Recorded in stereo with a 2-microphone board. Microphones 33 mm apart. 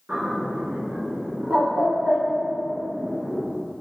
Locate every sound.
0.1 s a bird: 45° right (ahead or behind), 1.6 m